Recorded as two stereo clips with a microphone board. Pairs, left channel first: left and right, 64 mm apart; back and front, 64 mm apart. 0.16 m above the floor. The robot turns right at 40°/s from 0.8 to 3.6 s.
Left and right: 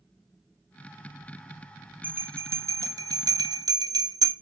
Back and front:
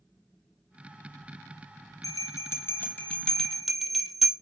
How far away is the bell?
About 0.9 m.